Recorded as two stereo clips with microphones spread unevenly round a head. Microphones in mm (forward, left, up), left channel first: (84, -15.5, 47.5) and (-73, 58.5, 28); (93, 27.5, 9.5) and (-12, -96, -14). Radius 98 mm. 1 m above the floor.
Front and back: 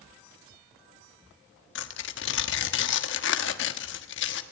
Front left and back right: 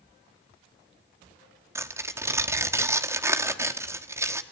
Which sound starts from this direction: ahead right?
Tearing paper, at 1.8 s.